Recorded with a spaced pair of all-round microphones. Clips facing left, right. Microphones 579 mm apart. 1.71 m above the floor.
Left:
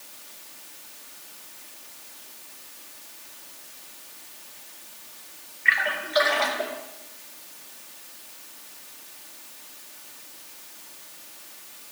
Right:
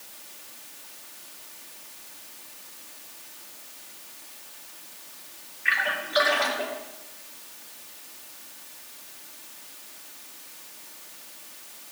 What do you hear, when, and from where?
5.7 s a splash: 55° right (ahead or behind), 2 m